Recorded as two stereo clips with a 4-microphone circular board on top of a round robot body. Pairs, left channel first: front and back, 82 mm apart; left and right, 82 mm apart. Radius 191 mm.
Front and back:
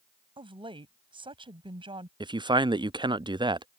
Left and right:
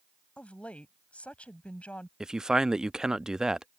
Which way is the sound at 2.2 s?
170° right.